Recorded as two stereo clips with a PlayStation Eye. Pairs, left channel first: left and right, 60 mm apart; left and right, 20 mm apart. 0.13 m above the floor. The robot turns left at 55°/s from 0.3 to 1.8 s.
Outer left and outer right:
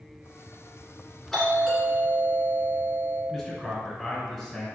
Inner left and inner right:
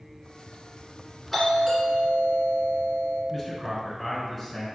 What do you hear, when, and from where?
1.3 s a doorbell: 10° left (ahead or behind), 1.6 m; by 3.2 s centre (ahead or behind), 1.6 m
3.3 s a man speaking: centre (ahead or behind), 1.3 m